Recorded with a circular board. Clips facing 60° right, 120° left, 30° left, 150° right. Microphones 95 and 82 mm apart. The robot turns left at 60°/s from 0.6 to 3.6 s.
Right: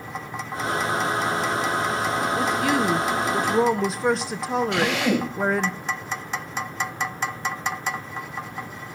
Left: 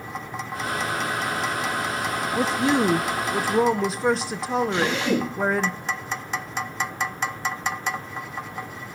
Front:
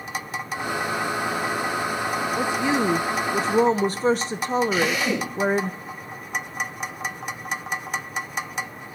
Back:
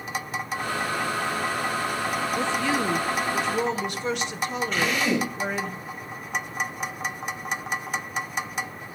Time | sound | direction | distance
2.4 | a woman speaking | 105° left | 0.6 m
4.7 | a drill | 50° right | 8 m